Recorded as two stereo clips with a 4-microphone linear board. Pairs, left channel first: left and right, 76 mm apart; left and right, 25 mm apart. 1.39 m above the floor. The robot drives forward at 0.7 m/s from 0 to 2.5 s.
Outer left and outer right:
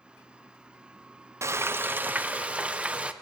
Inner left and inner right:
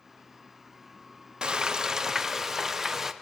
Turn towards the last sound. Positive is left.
turn(degrees=-15)  # may be behind; listen again after turning